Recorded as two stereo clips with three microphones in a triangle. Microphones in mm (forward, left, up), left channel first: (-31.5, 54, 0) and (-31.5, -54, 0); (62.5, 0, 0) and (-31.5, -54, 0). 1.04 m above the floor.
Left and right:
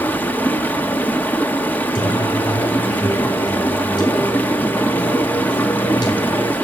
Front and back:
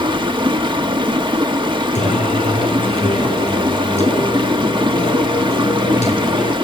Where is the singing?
45° left, 4 m.